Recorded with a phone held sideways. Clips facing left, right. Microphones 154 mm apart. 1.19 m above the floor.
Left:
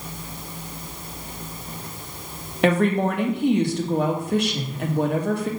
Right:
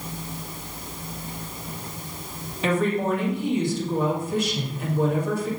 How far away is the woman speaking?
About 1.9 m.